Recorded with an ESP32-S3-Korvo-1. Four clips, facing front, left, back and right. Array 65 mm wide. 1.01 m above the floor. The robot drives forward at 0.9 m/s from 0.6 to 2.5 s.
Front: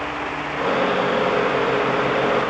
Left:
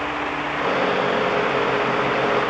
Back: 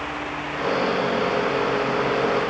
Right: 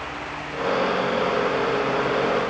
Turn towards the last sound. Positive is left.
No sound to turn to.